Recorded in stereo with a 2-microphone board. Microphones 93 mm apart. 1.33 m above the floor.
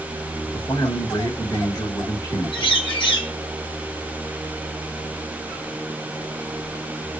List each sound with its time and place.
0.5 s a man speaking: 40° left (ahead or behind), 2.5 m
2.5 s a bird: 60° left (ahead or behind), 2.5 m